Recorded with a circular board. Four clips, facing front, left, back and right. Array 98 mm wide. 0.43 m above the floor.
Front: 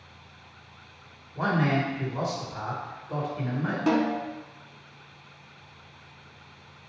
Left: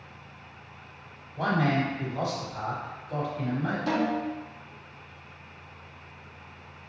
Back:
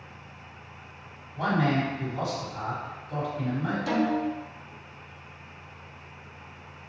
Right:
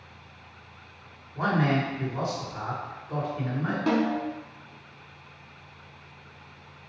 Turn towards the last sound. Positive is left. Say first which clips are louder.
# right 3 dB, front 2 dB
turn(degrees=-40)